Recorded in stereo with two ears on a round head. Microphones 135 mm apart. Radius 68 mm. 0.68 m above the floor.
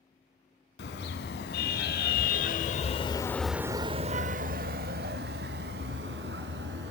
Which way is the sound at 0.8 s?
75° left (ahead or behind).